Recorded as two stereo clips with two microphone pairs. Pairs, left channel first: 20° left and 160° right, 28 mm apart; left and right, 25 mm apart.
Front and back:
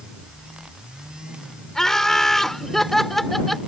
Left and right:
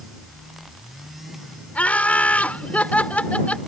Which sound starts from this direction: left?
Laughter, at 1.8 s.